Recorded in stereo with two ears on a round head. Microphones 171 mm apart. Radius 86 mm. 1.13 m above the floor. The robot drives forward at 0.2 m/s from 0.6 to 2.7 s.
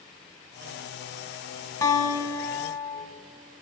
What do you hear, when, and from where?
1.8 s a guitar: 20° left (ahead or behind), 1.0 m